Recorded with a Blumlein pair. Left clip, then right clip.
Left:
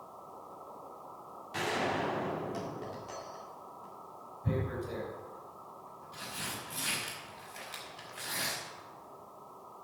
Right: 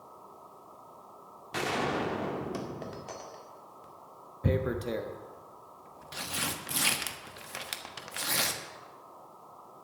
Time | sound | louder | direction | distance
1.5 | a gunshot | right 2 dB | 70° right | 2 m
4.4 | tearing paper | right 6 dB | 50° right | 1.3 m